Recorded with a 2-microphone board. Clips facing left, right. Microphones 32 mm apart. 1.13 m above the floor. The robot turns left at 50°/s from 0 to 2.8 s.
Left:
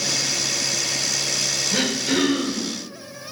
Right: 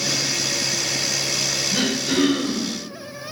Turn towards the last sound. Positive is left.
turn(degrees=-10)